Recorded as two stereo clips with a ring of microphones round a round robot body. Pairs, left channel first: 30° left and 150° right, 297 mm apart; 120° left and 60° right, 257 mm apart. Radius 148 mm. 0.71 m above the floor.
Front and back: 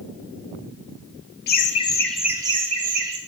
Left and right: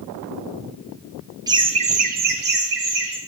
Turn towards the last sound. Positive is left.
turn(degrees=-100)